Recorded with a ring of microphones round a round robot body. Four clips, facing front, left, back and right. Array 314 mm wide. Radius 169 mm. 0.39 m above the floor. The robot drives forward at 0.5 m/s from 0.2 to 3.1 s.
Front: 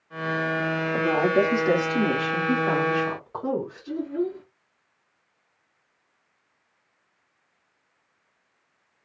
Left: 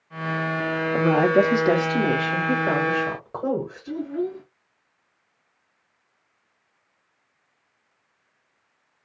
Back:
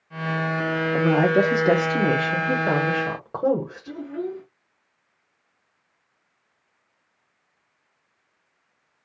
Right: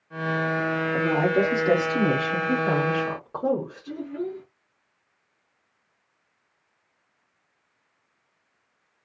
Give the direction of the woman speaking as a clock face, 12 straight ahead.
8 o'clock.